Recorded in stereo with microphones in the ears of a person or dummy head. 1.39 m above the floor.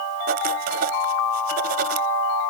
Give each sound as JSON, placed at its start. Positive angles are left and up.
{"t": 0.3, "sound": "writing", "side_deg": -45}